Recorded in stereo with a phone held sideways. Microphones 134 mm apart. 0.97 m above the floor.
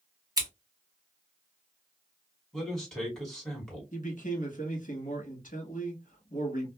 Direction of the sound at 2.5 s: 5° left (ahead or behind).